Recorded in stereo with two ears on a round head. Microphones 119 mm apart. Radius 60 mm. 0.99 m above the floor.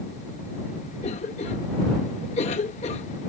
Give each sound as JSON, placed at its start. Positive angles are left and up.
{"t": 1.0, "sound": "a cough", "side_deg": 45}